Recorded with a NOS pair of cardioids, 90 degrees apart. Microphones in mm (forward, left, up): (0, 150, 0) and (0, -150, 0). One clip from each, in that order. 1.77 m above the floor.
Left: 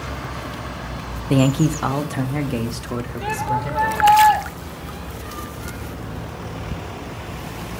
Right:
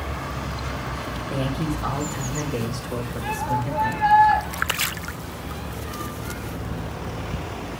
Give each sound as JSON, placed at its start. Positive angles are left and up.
{"t": 1.3, "sound": "a man speaking", "azimuth_deg": 65, "distance_m": 0.7}
{"t": 3.2, "sound": "a shout", "azimuth_deg": 50, "distance_m": 1.6}